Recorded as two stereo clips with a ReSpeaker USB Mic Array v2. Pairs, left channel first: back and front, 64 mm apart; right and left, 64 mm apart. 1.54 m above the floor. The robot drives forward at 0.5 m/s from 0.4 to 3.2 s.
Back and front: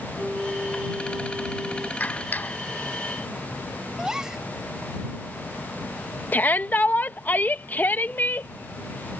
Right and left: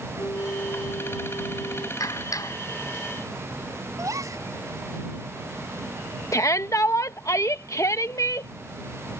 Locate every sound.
0.2 s a flute: 75° right
2.0 s a clap: 115° right
4.0 s a gasp: 80° left
6.3 s a shout: 120° right